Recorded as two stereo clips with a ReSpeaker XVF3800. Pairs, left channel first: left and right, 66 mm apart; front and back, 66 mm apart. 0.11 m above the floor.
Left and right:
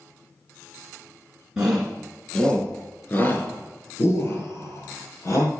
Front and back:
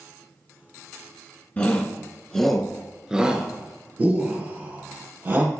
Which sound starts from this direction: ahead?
A shout, at 1.6 s.